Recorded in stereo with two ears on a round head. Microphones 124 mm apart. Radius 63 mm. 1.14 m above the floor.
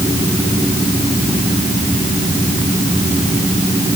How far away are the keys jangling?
No keys jangling in this recording.